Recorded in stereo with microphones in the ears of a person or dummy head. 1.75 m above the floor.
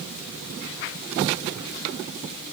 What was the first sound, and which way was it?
Only background noise.